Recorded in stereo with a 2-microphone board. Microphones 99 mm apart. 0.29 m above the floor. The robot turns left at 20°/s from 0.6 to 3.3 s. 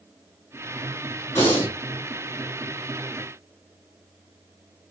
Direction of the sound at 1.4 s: 25° left (ahead or behind).